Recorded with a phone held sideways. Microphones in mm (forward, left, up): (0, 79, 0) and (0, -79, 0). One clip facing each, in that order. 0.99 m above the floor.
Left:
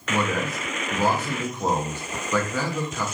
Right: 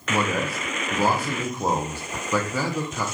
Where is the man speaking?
10° right (ahead or behind), 0.6 m.